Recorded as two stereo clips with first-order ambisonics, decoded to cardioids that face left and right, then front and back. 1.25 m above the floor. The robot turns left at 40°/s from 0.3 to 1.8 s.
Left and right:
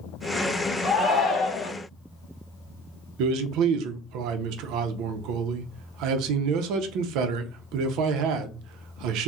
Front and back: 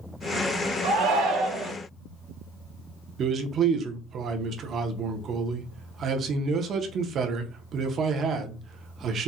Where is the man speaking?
120° right, 0.5 m.